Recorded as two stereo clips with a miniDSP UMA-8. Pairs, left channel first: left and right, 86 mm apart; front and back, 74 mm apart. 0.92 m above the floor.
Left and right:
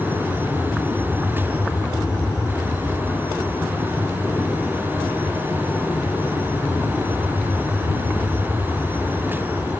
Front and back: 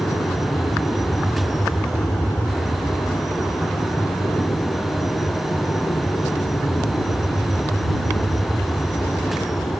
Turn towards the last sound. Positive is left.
turn(degrees=30)